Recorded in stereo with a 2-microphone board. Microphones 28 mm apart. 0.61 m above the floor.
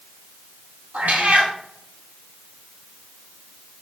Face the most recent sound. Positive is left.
turn(degrees=-75)  # may be behind; listen again after turning